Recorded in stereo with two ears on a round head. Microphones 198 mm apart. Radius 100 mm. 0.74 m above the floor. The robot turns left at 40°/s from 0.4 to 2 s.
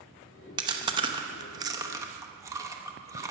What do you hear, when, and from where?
0.6 s chewing: 20° right (ahead or behind), 0.8 m; by 3.3 s 15° right (ahead or behind), 0.8 m